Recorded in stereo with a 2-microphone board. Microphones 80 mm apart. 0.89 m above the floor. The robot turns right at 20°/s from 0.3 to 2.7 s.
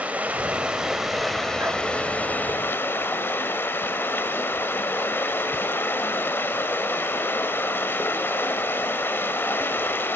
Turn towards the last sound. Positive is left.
turn(degrees=30)